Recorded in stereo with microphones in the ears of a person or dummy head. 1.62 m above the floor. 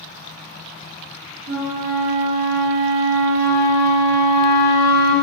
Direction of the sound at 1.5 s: 45° right (ahead or behind).